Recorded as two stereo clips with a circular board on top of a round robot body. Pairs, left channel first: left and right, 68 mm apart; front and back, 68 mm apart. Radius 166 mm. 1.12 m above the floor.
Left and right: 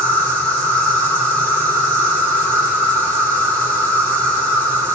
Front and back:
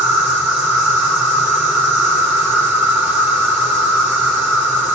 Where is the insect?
115° right, 1.4 m.